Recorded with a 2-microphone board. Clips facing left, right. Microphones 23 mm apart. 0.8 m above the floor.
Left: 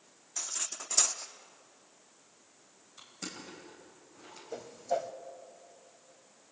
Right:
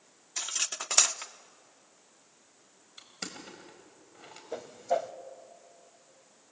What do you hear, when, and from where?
0.4 s cutlery clinking: 50° right (ahead or behind), 0.7 m
3.0 s crushing: 35° right (ahead or behind), 4 m
4.5 s a whoosh: 25° right (ahead or behind), 0.8 m